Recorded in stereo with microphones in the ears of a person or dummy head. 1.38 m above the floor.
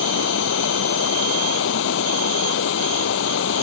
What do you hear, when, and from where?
0.0 s running water: 75° left (ahead or behind)